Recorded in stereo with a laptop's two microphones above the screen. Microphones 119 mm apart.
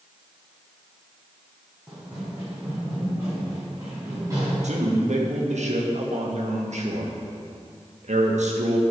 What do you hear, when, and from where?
1.9 s running footsteps: 5° right (ahead or behind), 2.5 m; by 4.5 s 25° right (ahead or behind), 5.5 m
4.6 s a man speaking: 75° right (ahead or behind), 1.3 m